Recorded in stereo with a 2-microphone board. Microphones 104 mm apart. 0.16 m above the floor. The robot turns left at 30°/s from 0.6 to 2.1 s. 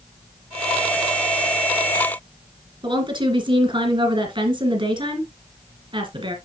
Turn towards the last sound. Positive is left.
turn(degrees=-50)  # may be behind; listen again after turning